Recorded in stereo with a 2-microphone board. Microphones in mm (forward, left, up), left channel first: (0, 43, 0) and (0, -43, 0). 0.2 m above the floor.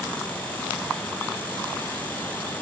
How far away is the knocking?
I don't hear knocking.